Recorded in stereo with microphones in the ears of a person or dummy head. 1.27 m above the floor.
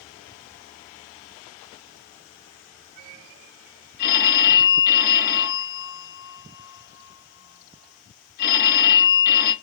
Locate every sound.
4.0 s a phone ringing: 50° left (ahead or behind), 1.0 m